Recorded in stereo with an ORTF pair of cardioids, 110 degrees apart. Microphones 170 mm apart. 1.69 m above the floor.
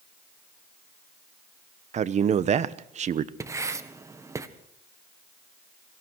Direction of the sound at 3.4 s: 20° right.